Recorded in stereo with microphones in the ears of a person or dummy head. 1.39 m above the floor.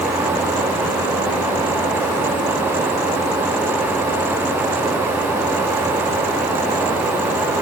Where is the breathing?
I don't hear breathing.